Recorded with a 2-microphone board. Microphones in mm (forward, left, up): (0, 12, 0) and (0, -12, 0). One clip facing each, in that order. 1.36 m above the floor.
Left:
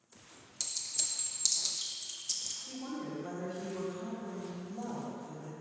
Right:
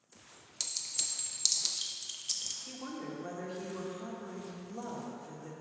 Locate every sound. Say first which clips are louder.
0.6 s a clink: right 1 dB; 25° right (ahead or behind), 0.6 m
2.7 s a woman speaking: left 1 dB; 55° right (ahead or behind), 1.5 m